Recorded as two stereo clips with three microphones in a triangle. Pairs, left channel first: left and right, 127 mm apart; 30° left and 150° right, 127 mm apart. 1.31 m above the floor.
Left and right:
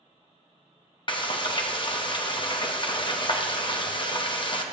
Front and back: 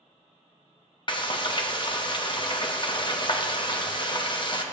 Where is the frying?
60° left, 0.8 m.